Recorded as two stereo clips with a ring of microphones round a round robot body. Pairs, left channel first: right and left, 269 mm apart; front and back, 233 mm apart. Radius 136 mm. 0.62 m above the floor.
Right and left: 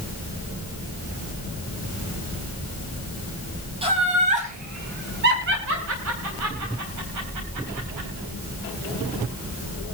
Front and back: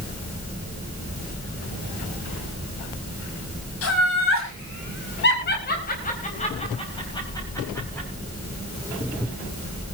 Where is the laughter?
20° left, 5 m; by 8.1 s 85° left, 5 m.